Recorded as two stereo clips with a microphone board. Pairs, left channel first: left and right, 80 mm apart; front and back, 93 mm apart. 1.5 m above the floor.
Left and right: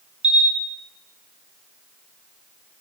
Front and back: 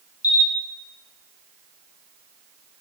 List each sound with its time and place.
0.2 s a camera shutter: 15° right, 1.8 m